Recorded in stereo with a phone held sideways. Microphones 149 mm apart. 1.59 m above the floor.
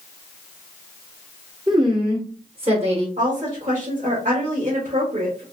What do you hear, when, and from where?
1.7 s a woman speaking: 25° right (ahead or behind), 1.3 m; by 3.1 s 45° right (ahead or behind), 1.9 m
3.2 s a woman speaking: 55° right (ahead or behind), 2.5 m